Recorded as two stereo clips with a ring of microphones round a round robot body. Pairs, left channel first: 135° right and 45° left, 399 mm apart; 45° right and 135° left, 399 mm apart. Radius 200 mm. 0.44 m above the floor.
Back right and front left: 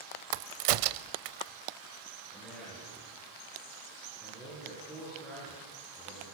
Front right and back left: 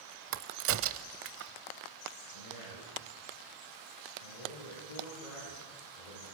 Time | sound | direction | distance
0.3 | a crack | 75° left | 0.9 m
2.3 | a man speaking | 50° right | 8.5 m